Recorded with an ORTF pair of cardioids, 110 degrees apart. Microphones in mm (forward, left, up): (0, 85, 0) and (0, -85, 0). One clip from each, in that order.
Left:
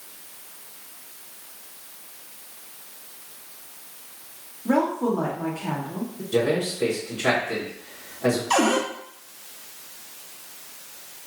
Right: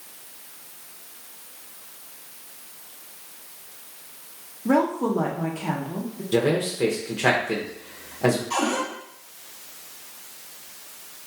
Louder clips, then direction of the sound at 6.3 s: Right 1 dB; 55° right.